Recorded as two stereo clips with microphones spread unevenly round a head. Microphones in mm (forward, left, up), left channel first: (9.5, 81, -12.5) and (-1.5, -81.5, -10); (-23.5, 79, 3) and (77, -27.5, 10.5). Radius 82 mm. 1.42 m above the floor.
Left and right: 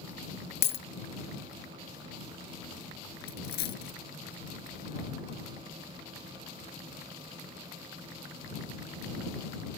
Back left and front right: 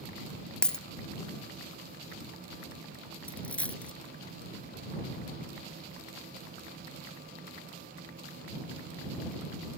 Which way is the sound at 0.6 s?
50° left.